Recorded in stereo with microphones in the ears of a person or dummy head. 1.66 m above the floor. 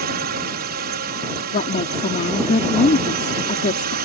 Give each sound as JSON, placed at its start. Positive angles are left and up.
{"t": 0.0, "sound": "a drone", "side_deg": -50}
{"t": 1.5, "sound": "a woman speaking", "side_deg": 35}